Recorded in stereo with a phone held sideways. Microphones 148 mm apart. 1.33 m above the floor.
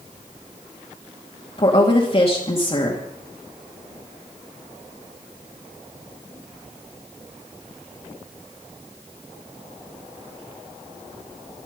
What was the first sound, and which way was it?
A woman speaking, 40° left (ahead or behind).